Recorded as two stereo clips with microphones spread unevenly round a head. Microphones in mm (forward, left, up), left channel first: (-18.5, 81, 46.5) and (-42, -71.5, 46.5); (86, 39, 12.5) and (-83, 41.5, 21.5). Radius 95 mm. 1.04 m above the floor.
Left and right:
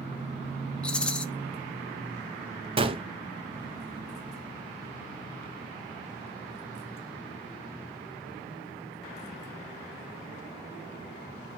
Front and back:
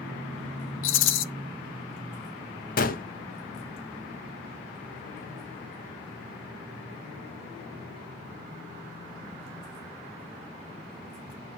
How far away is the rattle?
About 0.8 m.